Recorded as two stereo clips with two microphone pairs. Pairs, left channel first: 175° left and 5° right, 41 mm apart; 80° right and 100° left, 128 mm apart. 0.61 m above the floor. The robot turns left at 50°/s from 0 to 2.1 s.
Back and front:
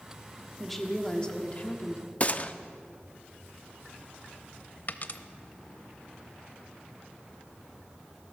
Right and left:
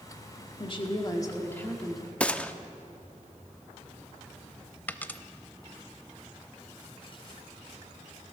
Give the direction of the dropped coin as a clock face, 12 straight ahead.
5 o'clock.